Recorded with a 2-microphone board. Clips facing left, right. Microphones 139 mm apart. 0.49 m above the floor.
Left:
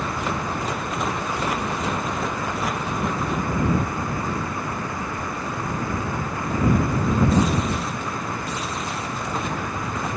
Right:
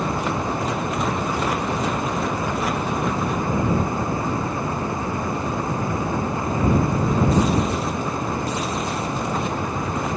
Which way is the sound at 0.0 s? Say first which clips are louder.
Right 3 dB; 25° right (ahead or behind).